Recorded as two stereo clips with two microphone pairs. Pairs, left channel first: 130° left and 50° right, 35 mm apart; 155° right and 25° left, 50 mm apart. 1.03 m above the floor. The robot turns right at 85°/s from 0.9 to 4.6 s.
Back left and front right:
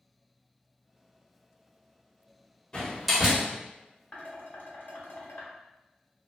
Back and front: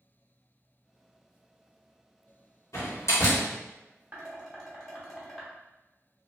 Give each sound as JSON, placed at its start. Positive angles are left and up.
{"t": 2.7, "sound": "a door slam", "azimuth_deg": -165, "distance_m": 1.2}
{"t": 4.1, "sound": "dishes clattering", "azimuth_deg": 80, "distance_m": 1.0}